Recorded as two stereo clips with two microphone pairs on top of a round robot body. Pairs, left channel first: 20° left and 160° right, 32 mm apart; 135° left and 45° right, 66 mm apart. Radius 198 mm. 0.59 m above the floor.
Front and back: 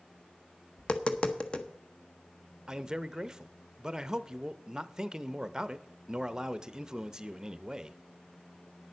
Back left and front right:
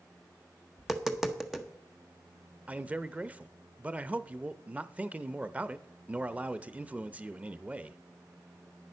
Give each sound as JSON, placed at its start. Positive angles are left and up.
{"t": 0.8, "sound": "tapping", "azimuth_deg": 35, "distance_m": 1.2}
{"t": 2.7, "sound": "a man speaking", "azimuth_deg": -95, "distance_m": 0.8}